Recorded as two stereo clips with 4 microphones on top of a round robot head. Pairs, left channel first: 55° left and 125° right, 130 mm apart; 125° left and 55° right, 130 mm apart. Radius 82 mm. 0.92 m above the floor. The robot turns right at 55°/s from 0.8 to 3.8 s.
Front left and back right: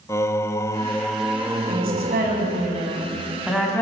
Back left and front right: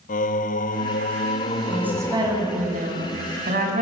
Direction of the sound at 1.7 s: 140° right.